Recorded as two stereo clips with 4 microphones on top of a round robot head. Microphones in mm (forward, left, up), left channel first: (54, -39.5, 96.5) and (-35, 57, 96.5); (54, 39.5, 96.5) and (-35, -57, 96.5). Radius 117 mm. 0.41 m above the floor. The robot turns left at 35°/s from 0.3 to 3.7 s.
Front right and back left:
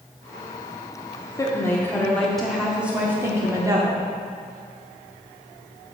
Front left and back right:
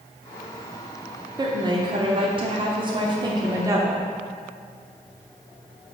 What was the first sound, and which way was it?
A woman speaking, 100° right.